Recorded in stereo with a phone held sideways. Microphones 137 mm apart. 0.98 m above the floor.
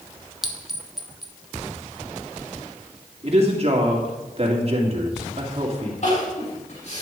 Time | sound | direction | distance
0.4 | a clink | centre (ahead or behind) | 1.0 m
3.2 | a woman speaking | 45° right (ahead or behind) | 2.5 m
6.0 | crying | 55° left (ahead or behind) | 5.5 m